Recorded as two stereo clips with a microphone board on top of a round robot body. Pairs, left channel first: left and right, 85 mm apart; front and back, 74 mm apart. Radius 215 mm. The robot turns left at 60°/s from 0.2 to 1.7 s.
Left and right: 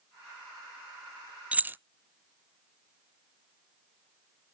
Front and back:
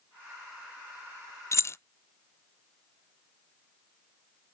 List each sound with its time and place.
1.5 s keys jangling: 25° right, 0.5 m; by 1.8 s 35° right, 0.5 m